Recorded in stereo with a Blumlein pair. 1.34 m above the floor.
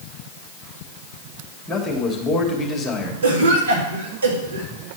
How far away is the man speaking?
About 2.5 m.